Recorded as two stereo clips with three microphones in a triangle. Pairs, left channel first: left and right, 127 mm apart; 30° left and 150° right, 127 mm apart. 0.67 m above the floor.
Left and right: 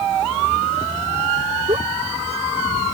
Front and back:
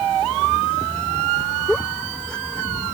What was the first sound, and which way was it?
A giggle, 55° right.